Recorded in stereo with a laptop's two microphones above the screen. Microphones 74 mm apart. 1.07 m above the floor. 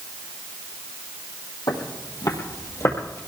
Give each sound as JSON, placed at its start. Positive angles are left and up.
{"t": 1.7, "sound": "footsteps", "side_deg": 65, "distance_m": 2.5}